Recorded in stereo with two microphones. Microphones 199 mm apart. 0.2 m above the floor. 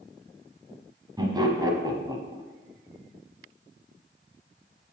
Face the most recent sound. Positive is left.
turn(degrees=-20)  # may be behind; listen again after turning